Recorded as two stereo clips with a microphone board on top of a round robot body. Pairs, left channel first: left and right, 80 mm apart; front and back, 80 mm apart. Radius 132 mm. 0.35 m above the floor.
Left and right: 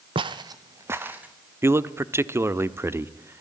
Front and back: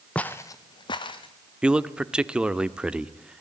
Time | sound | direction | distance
0.1 | footsteps | 80° right | 0.8 m
1.6 | a man speaking | 110° right | 1.2 m